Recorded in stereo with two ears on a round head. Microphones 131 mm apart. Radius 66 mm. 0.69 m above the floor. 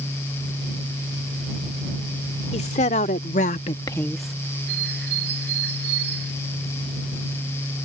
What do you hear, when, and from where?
2.5 s a woman speaking: 45° left (ahead or behind); by 4.4 s 5° right (ahead or behind)
4.7 s a bird: 80° right